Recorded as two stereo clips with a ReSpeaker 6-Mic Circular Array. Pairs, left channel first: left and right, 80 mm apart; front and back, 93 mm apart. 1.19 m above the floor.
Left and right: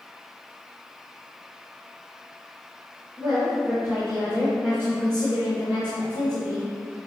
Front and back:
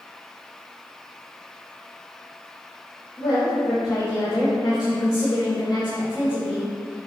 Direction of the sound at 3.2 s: 35° right.